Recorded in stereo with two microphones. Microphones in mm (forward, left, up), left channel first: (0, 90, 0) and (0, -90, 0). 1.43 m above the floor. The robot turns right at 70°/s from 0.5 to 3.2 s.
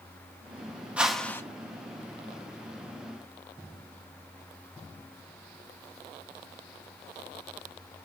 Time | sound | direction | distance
1.0 | a whoosh | 10° right | 0.9 m